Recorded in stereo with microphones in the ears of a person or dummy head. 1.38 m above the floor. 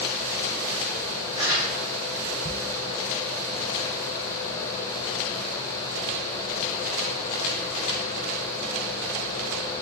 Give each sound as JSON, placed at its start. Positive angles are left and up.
{"t": 1.4, "sound": "crumpling", "side_deg": -35, "distance_m": 1.5}